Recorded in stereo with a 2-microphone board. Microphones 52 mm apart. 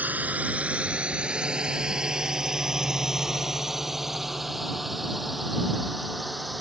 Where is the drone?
35° right (ahead or behind); by 6.6 s centre (ahead or behind).